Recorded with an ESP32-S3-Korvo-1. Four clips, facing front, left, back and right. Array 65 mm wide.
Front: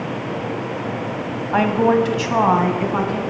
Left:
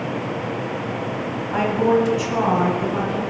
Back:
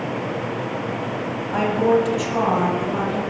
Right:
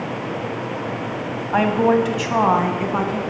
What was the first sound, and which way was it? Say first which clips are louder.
A woman speaking: right 2 dB, front 2 dB; 40° right.